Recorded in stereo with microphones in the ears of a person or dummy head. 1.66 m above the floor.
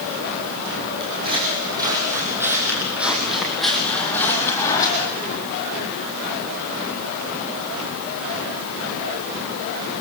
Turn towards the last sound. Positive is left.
turn(degrees=15)  # may be behind; listen again after turning